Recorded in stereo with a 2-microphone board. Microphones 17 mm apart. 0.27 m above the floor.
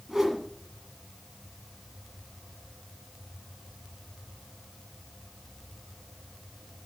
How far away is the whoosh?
About 1.6 m.